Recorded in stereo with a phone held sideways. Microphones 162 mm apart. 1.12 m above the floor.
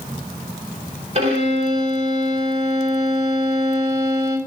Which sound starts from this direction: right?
A violin, at 1.1 s.